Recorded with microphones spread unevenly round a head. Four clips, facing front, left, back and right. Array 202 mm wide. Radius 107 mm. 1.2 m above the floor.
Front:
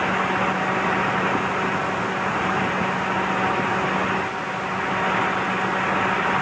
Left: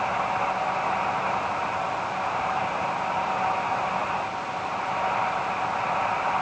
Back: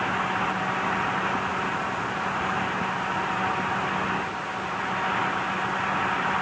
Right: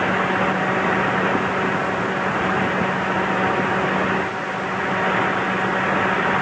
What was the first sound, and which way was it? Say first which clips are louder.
A fan: right 5 dB, front 4 dB; 70° right.